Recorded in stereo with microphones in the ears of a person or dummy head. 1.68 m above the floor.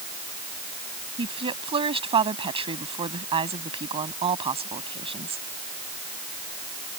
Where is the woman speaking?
25° right (ahead or behind).